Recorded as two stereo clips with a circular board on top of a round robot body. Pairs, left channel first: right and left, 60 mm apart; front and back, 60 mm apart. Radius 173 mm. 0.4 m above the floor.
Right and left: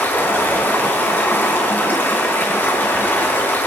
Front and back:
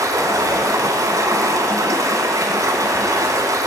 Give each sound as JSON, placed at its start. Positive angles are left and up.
{"t": 0.0, "sound": "running water", "azimuth_deg": -150, "distance_m": 2.5}